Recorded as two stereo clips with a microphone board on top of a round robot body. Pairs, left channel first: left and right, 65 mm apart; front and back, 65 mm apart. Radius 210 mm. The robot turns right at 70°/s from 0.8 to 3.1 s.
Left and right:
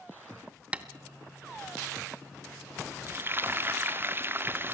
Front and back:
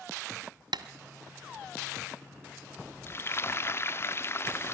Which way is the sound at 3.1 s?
45° right.